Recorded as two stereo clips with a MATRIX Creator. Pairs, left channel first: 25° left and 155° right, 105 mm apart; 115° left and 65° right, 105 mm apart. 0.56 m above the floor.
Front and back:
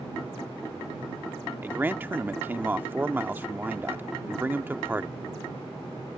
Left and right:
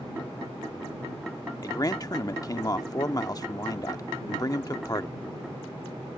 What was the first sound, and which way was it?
A man speaking, 140° left.